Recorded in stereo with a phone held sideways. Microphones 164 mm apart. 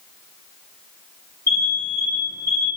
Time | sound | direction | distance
1.5 | an alarm | 70° left (ahead or behind) | 5 m